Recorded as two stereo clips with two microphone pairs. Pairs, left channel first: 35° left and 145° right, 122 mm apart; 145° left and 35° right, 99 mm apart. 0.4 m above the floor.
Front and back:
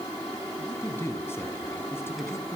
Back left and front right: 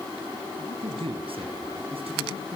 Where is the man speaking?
35° right, 4 m.